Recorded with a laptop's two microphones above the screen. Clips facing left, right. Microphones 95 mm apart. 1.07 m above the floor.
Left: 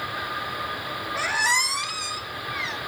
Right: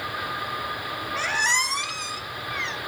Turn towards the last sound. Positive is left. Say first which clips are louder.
# left 1 dB
turn(degrees=5)  # may be behind; listen again after turning